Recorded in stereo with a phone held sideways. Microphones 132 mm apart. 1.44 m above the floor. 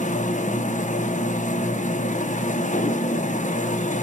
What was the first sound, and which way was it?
A machine running, 70° left (ahead or behind).